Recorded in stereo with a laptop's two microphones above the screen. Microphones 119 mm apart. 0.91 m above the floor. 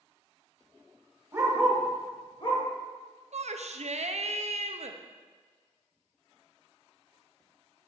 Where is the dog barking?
25° right (ahead or behind), 1.2 m; by 2.6 s 55° left (ahead or behind), 1.2 m.